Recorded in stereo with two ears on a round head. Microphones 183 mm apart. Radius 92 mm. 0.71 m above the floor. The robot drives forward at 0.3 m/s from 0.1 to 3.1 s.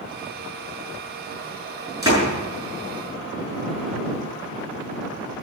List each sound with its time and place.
2.0 s a door slam: 15° right (ahead or behind), 6.5 m